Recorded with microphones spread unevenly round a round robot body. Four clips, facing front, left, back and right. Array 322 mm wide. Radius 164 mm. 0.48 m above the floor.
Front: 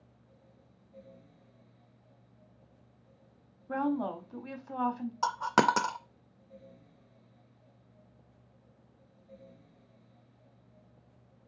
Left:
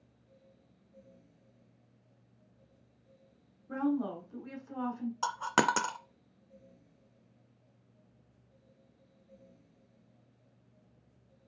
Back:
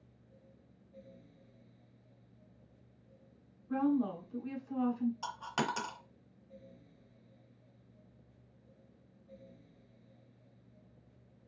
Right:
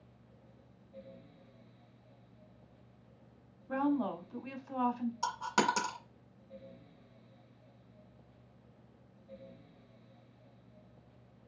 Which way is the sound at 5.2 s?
20° left.